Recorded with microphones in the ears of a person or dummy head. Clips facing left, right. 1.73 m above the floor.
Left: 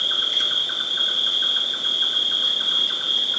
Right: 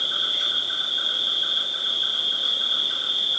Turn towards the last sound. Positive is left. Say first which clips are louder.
# left 2 dB
turn(degrees=70)  # may be behind; listen again after turning